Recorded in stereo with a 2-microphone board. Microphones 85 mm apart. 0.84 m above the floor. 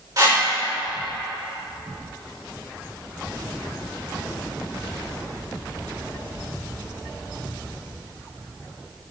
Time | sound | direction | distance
0.2 | a whoosh | 45° right (ahead or behind) | 2.5 m